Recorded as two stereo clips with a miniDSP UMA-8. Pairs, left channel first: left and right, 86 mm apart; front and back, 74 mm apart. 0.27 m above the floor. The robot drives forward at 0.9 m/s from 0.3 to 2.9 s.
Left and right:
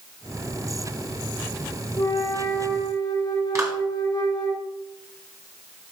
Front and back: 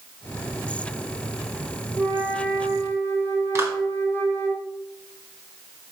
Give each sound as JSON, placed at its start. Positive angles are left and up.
{"t": 2.0, "sound": "a flute", "azimuth_deg": 115, "distance_m": 3.0}
{"t": 3.5, "sound": "a clap", "azimuth_deg": -135, "distance_m": 2.0}